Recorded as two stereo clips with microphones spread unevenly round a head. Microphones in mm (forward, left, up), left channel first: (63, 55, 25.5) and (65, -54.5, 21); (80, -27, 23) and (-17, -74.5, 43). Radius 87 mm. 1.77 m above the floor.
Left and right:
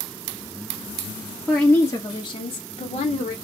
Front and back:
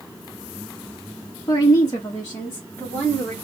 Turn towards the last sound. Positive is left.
turn(degrees=110)